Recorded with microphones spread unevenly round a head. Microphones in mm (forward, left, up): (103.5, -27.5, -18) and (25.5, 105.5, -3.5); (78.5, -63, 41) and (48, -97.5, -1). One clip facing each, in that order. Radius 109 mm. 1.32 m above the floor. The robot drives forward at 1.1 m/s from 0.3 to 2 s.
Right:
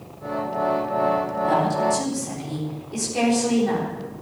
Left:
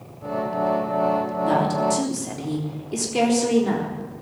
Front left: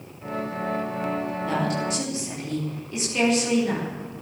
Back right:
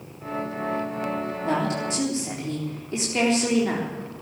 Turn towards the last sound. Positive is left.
turn(degrees=170)